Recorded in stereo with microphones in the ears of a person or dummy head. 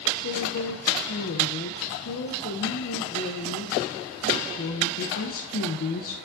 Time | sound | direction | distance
0.2 | a woman speaking | 70° left (ahead or behind) | 0.7 m